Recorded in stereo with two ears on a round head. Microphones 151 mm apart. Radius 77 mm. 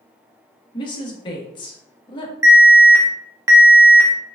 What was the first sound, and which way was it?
A woman speaking, 30° left (ahead or behind).